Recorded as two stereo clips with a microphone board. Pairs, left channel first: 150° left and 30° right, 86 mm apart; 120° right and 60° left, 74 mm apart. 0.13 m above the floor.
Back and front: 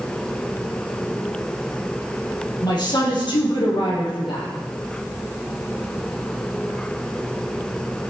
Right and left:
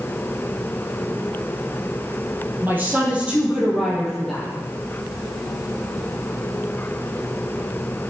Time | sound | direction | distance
2.6 | a woman speaking | 120° left | 3.5 m